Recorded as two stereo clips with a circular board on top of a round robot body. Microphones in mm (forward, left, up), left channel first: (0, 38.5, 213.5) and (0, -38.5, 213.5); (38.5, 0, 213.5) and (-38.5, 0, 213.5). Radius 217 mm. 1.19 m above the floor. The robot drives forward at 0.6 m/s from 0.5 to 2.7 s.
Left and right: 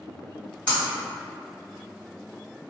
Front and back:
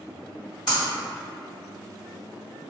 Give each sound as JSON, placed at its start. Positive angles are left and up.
{"t": 0.7, "sound": "breaking glass", "azimuth_deg": 20, "distance_m": 1.3}